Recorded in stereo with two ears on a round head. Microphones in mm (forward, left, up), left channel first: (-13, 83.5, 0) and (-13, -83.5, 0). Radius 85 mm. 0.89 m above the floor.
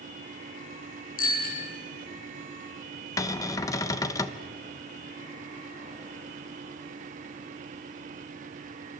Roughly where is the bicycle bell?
Left.